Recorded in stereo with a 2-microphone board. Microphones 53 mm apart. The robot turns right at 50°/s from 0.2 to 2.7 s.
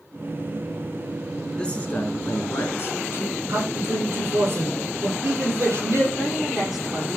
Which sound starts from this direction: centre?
A woman speaking, at 6.1 s.